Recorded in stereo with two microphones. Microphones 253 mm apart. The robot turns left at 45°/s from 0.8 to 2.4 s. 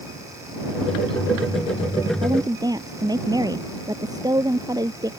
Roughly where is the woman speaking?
Right.